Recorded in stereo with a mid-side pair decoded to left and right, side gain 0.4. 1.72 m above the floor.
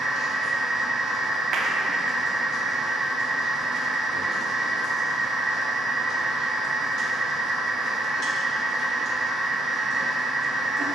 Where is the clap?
65° right, 0.8 m.